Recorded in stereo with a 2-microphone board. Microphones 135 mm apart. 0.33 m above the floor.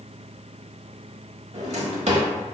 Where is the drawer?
55° right (ahead or behind), 0.9 m.